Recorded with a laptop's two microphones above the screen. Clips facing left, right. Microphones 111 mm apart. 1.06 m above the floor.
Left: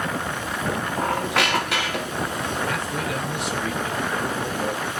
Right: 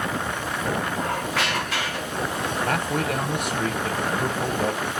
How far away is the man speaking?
About 0.9 m.